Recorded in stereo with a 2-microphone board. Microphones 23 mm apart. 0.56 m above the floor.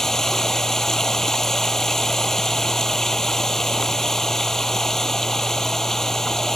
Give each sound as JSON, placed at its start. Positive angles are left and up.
{"t": 0.0, "sound": "running water", "side_deg": 20}